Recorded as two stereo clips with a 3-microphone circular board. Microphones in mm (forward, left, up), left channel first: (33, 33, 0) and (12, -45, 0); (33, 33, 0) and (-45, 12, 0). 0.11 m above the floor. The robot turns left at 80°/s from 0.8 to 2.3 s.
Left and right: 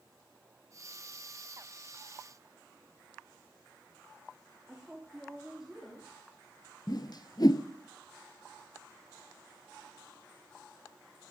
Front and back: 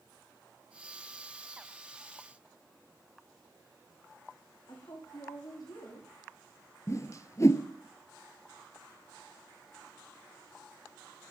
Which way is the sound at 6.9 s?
60° left.